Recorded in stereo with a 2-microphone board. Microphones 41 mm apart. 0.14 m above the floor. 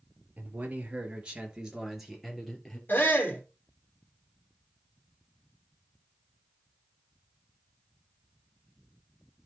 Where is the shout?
50° left (ahead or behind), 3 m.